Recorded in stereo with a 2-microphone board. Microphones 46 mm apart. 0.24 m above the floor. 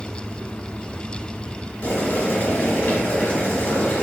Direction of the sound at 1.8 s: 35° left (ahead or behind).